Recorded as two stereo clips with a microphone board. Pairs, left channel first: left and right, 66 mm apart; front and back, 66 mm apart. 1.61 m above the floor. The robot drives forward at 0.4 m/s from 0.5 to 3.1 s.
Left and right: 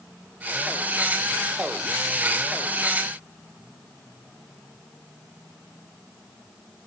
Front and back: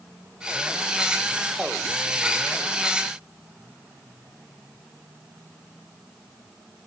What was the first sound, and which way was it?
Only background noise.